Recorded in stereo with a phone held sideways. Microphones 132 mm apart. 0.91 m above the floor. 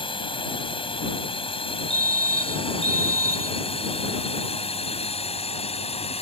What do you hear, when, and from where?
0.0 s a drone: 40° left (ahead or behind); by 6.2 s 50° left (ahead or behind)
1.9 s a fire alarm: 55° left (ahead or behind)